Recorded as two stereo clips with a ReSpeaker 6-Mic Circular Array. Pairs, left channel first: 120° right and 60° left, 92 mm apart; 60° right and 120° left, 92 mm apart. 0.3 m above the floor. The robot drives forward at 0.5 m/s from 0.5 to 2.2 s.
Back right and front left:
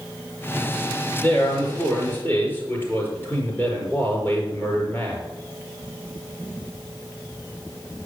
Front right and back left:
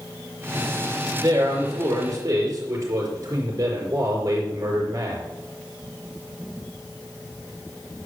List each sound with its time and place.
1.2 s a man speaking: 175° left, 4.5 m